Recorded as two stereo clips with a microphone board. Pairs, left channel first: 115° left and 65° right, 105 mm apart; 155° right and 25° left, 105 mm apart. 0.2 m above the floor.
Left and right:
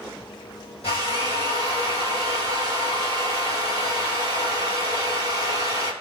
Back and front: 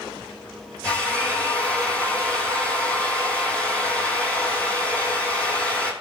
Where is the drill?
125° left, 3.5 m.